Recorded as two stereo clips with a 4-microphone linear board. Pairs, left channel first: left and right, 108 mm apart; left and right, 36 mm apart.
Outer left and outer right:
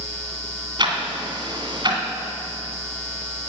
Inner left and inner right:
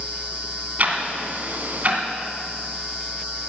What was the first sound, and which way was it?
Ticking, 45° right (ahead or behind).